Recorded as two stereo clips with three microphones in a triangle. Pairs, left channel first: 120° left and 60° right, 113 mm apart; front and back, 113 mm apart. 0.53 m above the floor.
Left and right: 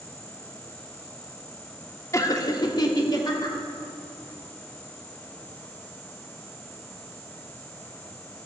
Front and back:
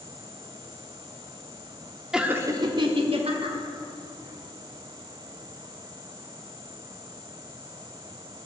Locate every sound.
2.1 s laughter: 100° left, 0.9 m; by 3.6 s 170° left, 2 m